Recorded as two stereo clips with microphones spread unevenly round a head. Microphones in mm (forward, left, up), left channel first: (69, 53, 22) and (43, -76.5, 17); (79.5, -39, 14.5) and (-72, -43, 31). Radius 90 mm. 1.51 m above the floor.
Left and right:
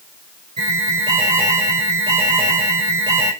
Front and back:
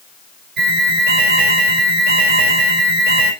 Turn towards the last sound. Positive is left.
turn(degrees=-165)